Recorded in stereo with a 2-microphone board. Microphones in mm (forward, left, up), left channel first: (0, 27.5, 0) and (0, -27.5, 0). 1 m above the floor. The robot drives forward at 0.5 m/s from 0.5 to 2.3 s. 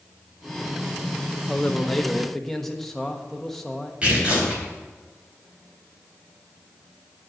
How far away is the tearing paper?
About 4 m.